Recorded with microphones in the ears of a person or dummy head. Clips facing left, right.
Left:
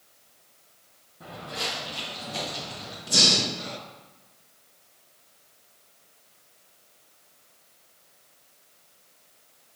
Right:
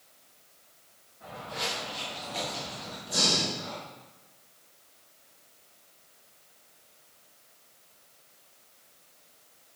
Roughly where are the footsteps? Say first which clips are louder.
Left 1 dB; left.